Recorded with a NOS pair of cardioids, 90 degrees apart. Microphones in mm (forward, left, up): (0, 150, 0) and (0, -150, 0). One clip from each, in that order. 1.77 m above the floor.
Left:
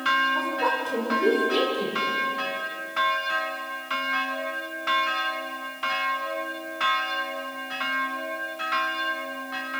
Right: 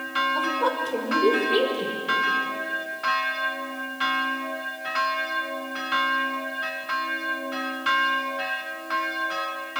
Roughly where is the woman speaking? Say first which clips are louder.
Right 1 dB; ahead.